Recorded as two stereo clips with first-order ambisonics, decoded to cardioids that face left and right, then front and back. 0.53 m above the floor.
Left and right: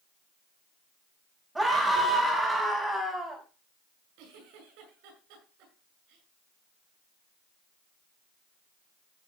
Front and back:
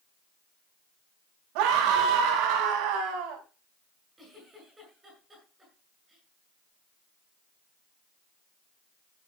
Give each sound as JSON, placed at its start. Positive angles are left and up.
{"t": 1.6, "sound": "a scream", "azimuth_deg": -175, "distance_m": 3.5}
{"t": 4.2, "sound": "a giggle", "azimuth_deg": -100, "distance_m": 8.0}